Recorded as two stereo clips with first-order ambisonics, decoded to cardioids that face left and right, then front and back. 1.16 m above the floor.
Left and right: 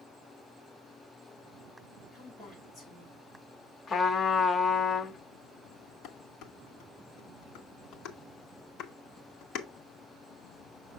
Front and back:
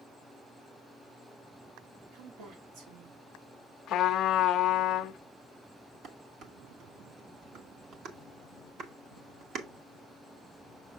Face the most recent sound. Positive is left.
turn(degrees=130)